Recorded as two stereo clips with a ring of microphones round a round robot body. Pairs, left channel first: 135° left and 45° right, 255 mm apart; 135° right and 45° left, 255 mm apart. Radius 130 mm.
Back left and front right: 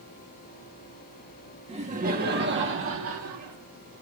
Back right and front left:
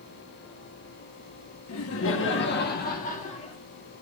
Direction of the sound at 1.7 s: 110° right.